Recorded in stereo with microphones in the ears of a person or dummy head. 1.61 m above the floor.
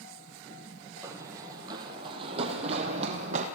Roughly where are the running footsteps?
Centre.